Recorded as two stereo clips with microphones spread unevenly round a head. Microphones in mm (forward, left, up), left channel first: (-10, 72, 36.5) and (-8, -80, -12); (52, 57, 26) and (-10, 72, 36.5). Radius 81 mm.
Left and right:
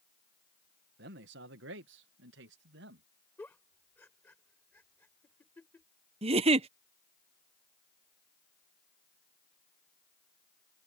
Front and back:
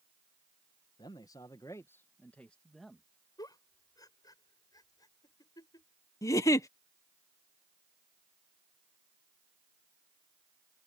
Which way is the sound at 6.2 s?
30° right.